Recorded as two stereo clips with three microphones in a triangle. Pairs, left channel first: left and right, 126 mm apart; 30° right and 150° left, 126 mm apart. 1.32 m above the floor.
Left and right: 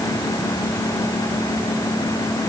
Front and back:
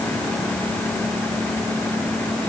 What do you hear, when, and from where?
Only background noise.